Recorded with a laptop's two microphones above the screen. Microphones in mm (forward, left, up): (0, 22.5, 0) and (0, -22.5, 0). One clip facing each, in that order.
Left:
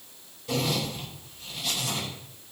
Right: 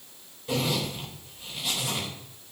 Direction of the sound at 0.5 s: 20° right (ahead or behind).